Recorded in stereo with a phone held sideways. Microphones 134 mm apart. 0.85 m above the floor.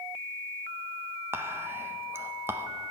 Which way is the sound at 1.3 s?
15° right (ahead or behind).